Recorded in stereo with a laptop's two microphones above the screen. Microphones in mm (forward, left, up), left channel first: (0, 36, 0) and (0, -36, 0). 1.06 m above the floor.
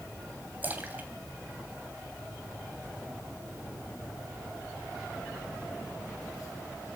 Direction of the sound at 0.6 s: 25° right (ahead or behind).